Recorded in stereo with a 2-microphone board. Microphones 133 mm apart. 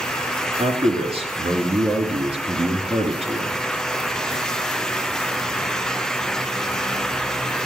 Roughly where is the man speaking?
Right.